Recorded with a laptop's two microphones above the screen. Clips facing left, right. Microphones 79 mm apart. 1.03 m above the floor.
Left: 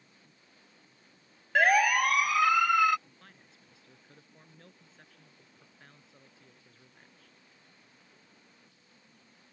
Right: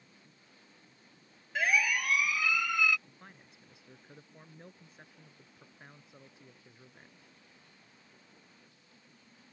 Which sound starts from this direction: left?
A siren, at 1.6 s.